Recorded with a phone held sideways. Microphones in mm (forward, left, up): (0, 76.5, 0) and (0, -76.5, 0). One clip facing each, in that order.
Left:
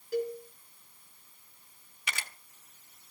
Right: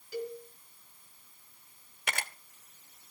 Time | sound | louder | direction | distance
0.1 | a cowbell | left 5 dB | 50° left (ahead or behind) | 4.5 m
2.1 | a camera shutter | right 4 dB | 50° right (ahead or behind) | 1.1 m